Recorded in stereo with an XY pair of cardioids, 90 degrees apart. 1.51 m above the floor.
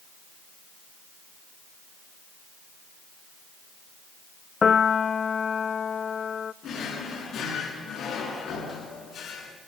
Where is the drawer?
60° left, 7.5 m.